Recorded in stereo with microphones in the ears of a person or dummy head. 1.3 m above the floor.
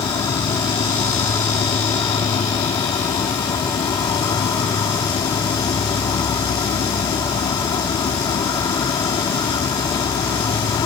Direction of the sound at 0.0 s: 25° left (ahead or behind).